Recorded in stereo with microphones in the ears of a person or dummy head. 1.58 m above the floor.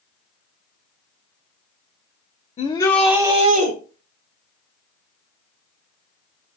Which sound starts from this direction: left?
A shout, at 2.6 s.